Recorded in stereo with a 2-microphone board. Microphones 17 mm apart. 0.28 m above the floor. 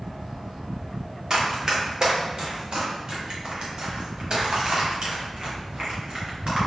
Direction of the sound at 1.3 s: 30° right (ahead or behind).